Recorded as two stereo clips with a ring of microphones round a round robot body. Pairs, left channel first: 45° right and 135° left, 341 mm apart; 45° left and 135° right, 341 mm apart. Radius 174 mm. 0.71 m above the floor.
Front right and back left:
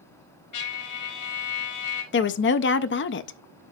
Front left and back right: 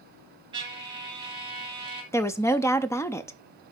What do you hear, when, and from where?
0.5 s a trumpet: 60° right, 2 m
2.1 s a woman speaking: 30° right, 0.5 m